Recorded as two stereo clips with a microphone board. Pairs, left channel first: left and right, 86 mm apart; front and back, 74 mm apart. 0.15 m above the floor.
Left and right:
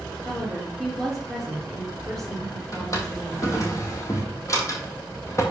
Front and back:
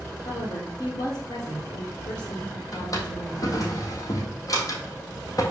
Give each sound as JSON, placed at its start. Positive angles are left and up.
{"t": 0.2, "sound": "a woman speaking", "azimuth_deg": 5, "distance_m": 3.0}
{"t": 2.7, "sound": "a drawer", "azimuth_deg": 40, "distance_m": 1.5}